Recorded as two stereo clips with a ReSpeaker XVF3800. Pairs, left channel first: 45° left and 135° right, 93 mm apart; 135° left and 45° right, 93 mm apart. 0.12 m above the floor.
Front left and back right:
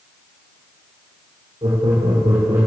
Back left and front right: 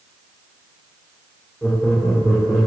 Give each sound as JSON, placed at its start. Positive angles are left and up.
{"t": 1.6, "sound": "laughter", "azimuth_deg": -145, "distance_m": 7.0}